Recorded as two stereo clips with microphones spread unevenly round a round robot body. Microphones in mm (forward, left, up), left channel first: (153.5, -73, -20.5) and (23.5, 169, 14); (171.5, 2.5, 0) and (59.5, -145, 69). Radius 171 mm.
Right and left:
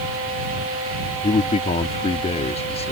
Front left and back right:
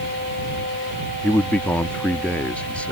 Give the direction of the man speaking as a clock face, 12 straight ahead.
12 o'clock.